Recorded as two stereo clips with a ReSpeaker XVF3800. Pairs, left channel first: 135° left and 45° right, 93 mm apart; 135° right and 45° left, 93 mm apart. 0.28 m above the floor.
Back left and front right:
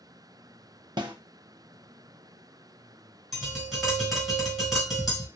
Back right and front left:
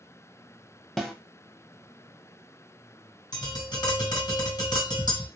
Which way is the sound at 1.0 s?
50° right.